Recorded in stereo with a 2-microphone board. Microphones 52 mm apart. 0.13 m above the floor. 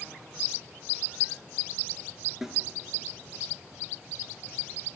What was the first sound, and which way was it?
A snare drum, 5° right (ahead or behind).